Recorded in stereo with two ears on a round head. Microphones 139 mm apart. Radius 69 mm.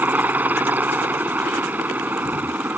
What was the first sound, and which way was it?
A helicopter, 10° right (ahead or behind).